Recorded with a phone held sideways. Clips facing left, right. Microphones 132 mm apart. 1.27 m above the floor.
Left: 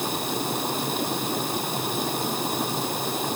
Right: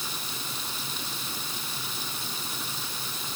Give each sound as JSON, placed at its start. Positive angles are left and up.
{"t": 0.0, "sound": "running water", "side_deg": 60}